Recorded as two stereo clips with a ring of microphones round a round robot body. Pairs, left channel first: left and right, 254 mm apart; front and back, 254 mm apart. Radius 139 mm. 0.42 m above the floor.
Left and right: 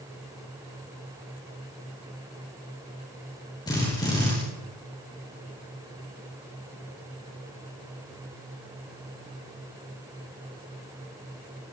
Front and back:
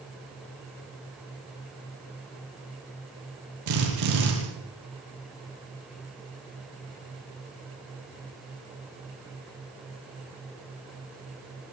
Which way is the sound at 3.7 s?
170° left.